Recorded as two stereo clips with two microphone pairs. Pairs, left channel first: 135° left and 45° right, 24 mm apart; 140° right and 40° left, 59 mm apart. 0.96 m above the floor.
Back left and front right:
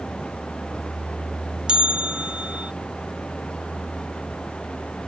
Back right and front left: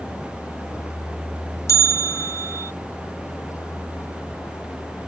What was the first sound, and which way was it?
A vehicle, 175° right.